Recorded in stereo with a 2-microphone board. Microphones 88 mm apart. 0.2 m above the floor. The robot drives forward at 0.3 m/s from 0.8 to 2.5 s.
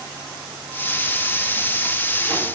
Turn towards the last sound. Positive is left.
No sound to turn to.